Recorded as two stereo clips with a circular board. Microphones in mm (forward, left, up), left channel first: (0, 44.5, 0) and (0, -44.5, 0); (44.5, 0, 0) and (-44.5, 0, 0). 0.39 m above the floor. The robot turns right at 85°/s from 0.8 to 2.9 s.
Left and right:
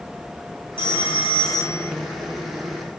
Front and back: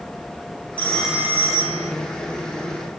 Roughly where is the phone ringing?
Left.